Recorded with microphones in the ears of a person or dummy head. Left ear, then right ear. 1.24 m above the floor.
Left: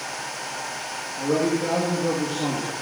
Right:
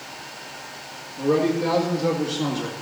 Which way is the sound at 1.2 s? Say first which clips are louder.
Right 2 dB; 30° right (ahead or behind).